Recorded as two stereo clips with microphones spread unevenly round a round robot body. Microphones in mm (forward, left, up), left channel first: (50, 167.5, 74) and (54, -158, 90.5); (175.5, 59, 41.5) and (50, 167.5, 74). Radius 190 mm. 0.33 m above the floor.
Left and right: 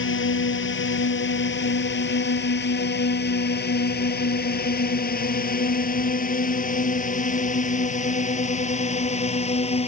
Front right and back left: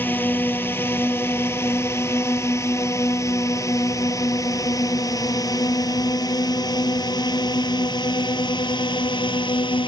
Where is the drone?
40° left; by 9.9 s 20° left.